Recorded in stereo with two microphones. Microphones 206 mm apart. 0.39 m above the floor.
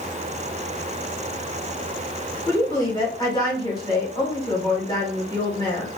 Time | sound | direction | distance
2.5 | a woman speaking | 20° left (ahead or behind) | 1.2 m